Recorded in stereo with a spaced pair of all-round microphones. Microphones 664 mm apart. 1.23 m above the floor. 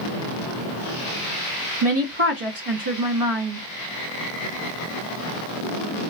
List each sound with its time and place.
1.8 s a woman speaking: 50° right (ahead or behind), 1.9 m